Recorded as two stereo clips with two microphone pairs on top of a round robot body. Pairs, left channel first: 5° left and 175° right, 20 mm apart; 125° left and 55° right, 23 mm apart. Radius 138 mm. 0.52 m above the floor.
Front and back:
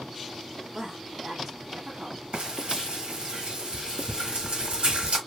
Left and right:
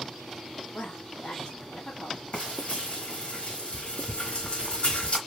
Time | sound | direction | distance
0.7 | a woman speaking | 115° left | 1.7 m
2.3 | frying | 160° left | 1.3 m